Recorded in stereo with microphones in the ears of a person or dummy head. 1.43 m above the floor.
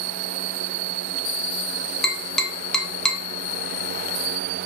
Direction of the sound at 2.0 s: 5° left (ahead or behind).